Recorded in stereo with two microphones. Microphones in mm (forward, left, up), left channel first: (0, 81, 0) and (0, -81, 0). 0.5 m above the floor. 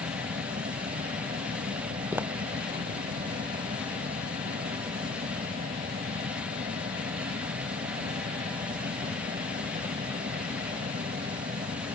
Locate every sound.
0.0 s an aircraft: 60° right (ahead or behind)
2.1 s footsteps: 15° right (ahead or behind)